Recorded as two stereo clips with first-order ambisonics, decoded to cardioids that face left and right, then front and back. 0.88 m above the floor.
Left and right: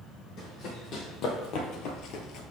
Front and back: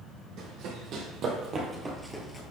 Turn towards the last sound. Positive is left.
turn(degrees=70)